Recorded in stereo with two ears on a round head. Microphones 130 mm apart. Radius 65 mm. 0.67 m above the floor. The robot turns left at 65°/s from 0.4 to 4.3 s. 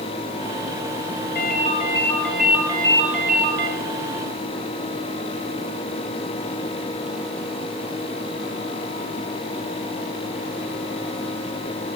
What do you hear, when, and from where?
1.4 s a ringtone: 65° left, 5 m; by 3.7 s 85° right, 5 m